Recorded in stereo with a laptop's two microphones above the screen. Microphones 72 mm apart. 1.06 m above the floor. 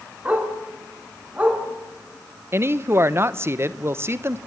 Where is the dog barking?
20° right (ahead or behind), 5 m.